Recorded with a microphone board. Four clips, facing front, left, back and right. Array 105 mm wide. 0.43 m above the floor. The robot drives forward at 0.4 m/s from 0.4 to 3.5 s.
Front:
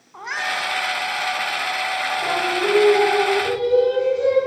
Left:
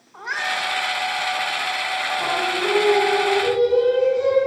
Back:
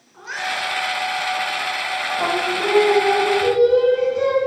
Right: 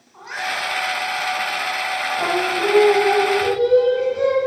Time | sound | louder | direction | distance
0.1 | a cat meowing | left 1 dB, front 1 dB | 20° left | 2.0 m
2.2 | singing | right 4 dB, back 1 dB | 135° right | 3 m